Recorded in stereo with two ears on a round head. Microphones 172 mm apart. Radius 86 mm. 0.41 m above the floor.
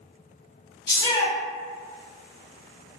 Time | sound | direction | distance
0.9 | a shout | 20° left (ahead or behind) | 0.9 m